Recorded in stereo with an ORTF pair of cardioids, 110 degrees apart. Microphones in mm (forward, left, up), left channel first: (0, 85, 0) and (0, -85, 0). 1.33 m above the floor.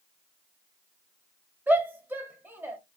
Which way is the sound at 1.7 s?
10° right.